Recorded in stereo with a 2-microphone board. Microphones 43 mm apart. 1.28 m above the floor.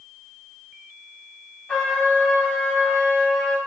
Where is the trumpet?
20° left (ahead or behind), 1.8 m.